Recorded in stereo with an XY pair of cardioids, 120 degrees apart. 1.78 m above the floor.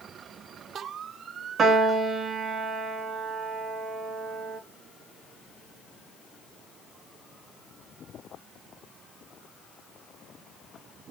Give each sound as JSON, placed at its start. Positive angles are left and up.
{"t": 1.6, "sound": "a piano", "azimuth_deg": -45, "distance_m": 1.0}